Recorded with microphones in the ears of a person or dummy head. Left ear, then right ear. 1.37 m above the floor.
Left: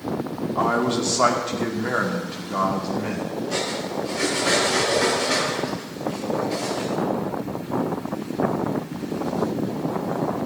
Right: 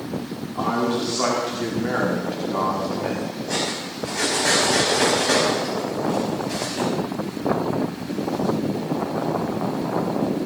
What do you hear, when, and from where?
0.6 s a man speaking: 35° left (ahead or behind), 2.5 m; by 3.3 s centre (ahead or behind), 2.5 m
3.5 s cutlery clinking: 70° right (ahead or behind), 5.5 m